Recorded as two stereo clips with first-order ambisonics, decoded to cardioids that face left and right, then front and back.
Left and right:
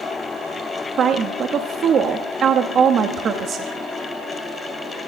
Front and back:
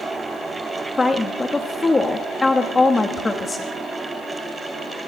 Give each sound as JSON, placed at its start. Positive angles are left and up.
{"t": 1.0, "sound": "a woman speaking", "azimuth_deg": -65, "distance_m": 1.0}